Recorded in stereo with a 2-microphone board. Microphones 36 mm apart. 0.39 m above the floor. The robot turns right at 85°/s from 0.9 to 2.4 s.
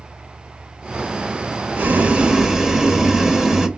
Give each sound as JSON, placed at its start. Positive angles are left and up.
{"t": 1.8, "sound": "boiling", "azimuth_deg": -70, "distance_m": 0.5}